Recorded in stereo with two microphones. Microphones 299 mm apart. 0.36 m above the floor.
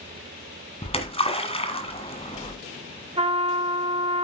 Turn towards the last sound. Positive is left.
turn(degrees=-20)  # may be behind; listen again after turning